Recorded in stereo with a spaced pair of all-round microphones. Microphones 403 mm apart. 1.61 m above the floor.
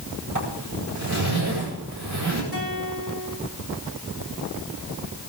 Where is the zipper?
45° right (ahead or behind), 9 m.